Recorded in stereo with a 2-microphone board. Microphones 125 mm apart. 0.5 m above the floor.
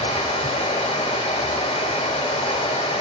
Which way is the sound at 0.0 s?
65° left (ahead or behind).